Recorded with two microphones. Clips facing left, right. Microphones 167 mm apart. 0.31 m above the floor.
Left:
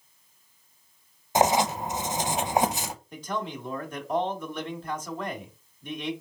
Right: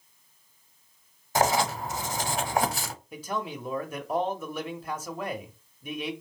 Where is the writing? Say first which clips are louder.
Left 2 dB; 20° left (ahead or behind), 0.6 m.